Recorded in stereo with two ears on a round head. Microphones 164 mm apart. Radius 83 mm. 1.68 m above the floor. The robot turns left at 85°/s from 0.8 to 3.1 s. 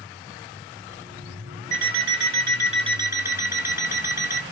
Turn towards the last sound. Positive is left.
turn(degrees=-165)